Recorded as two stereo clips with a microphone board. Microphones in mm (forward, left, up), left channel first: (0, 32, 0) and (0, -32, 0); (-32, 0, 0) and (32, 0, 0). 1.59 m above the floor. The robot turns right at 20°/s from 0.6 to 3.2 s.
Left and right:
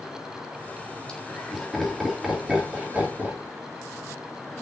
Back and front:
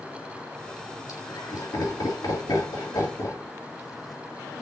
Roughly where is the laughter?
Behind.